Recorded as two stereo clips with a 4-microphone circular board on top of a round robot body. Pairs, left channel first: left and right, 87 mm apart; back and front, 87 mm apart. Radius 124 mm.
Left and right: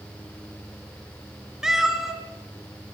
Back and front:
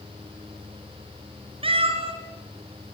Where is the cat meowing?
5° right, 2.5 m.